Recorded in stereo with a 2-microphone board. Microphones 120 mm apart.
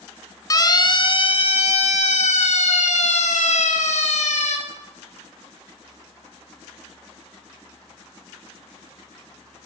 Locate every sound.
0.5 s a siren: 30° left (ahead or behind), 2.5 m; by 4.6 s 75° left (ahead or behind), 5 m